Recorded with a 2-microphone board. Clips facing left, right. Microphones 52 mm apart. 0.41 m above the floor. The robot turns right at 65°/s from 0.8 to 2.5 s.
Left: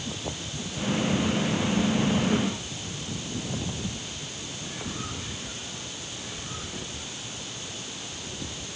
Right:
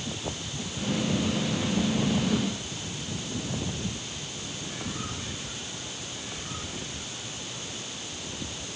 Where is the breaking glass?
No breaking glass in this recording.